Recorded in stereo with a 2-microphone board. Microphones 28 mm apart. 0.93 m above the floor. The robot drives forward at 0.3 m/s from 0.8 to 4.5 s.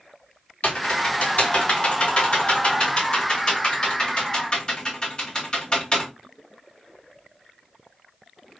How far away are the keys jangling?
No keys jangling in this recording.